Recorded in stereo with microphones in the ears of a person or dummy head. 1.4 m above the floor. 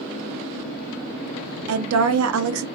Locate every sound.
1.7 s a woman speaking: 85° right, 0.5 m